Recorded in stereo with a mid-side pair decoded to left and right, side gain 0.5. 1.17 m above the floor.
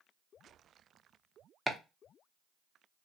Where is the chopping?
5° right, 0.8 m.